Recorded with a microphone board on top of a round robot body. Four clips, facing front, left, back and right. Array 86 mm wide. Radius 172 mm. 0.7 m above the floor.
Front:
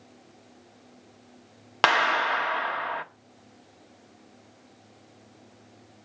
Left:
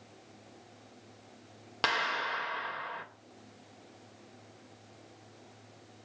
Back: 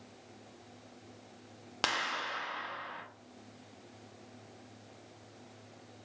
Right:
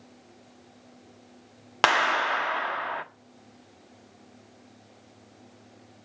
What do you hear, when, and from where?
1.8 s a clap: 45° right, 1.5 m